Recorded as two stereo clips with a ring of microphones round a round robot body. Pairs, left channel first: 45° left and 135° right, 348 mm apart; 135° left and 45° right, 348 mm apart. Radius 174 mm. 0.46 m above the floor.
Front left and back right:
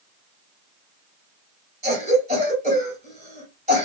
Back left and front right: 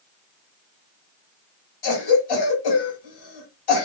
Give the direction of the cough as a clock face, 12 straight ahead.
7 o'clock.